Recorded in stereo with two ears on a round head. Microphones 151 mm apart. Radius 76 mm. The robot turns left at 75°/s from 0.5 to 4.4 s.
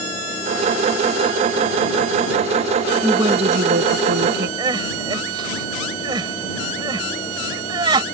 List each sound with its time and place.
3.0 s a woman speaking: 10° right; by 4.5 s 110° right
4.6 s crying: 25° right (ahead or behind)